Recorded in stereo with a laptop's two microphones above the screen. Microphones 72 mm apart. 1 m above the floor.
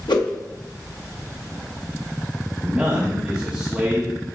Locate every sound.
0.1 s a whoosh: 80° left, 1.0 m
2.6 s a man speaking: 20° right (ahead or behind), 1.2 m